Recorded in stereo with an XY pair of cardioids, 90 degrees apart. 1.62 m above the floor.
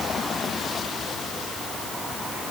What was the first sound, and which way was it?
Only background noise.